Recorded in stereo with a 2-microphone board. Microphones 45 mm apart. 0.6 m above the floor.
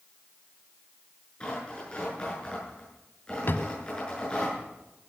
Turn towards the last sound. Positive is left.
turn(degrees=50)  # may be behind; listen again after turning